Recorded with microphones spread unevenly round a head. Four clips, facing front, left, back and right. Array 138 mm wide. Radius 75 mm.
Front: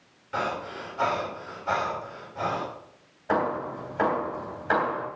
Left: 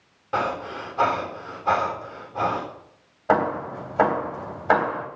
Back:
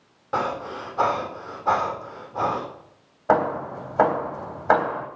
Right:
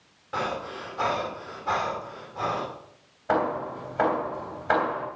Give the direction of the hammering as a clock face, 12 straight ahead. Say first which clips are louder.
Left 4 dB, back 5 dB; 7 o'clock.